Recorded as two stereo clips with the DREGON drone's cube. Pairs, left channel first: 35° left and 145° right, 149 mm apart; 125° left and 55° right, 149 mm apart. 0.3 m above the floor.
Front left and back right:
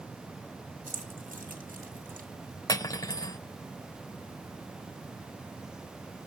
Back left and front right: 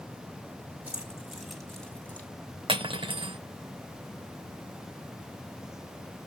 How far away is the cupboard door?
No cupboard door in this recording.